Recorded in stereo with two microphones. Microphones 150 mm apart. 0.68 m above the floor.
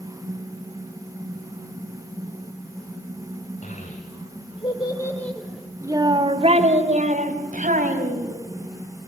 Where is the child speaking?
60° left (ahead or behind), 3 m; by 8.3 s 70° right (ahead or behind), 4.5 m.